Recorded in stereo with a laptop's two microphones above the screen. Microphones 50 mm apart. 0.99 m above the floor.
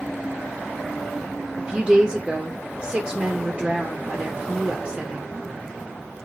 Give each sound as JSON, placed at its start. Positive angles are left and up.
{"t": 1.6, "sound": "a woman speaking", "side_deg": -25, "distance_m": 0.7}